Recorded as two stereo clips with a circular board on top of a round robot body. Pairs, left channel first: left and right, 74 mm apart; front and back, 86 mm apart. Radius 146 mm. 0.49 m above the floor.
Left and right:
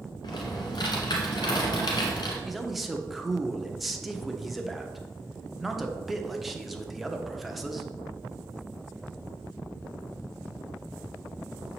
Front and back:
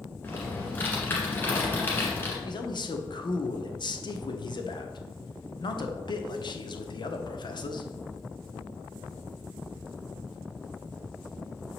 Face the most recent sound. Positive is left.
turn(degrees=0)